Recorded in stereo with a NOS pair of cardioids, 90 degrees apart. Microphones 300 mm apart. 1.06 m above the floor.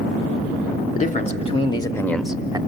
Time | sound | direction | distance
0.9 | a man speaking | 25° left | 2.5 m